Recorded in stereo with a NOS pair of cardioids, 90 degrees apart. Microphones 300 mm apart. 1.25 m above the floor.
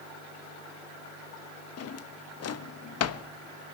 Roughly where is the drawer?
Ahead left.